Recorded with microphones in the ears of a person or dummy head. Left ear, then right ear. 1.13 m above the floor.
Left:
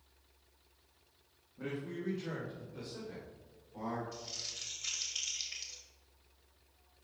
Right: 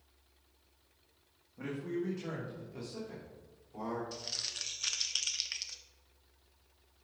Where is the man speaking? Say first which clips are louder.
Right 3 dB; 65° right (ahead or behind), 1.5 m; by 4.0 s 85° right, 3.5 m.